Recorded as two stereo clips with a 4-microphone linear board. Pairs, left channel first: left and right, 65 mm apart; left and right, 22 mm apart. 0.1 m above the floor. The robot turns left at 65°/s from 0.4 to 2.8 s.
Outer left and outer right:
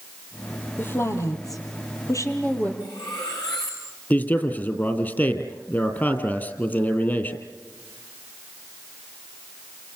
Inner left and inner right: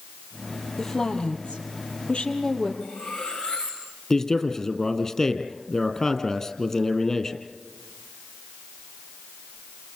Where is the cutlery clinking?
75° left (ahead or behind), 6 m.